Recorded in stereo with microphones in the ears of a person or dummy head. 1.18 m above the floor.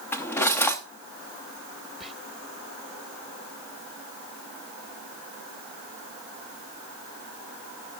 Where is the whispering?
5° right (ahead or behind), 0.9 m.